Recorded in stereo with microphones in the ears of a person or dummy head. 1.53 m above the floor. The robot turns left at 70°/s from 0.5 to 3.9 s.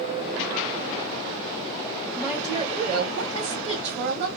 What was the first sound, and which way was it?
A woman speaking, straight ahead.